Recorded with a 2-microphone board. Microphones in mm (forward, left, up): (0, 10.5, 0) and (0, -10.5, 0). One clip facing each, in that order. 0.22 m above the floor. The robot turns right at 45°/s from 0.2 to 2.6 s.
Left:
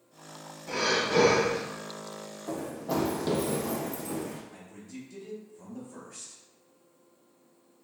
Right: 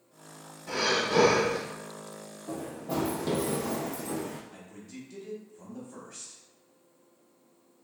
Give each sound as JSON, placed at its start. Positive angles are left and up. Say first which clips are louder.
{"t": 0.7, "sound": "breathing", "louder": "even", "side_deg": -10, "distance_m": 0.9}
{"t": 2.5, "sound": "running footsteps", "louder": "left 2 dB", "side_deg": 65, "distance_m": 0.8}
{"t": 4.5, "sound": "a man speaking", "louder": "left 1 dB", "side_deg": -20, "distance_m": 0.9}